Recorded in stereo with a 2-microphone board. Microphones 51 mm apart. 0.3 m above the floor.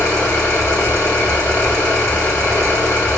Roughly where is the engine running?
Left.